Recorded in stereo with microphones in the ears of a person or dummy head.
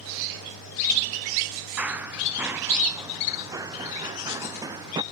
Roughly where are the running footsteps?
Centre.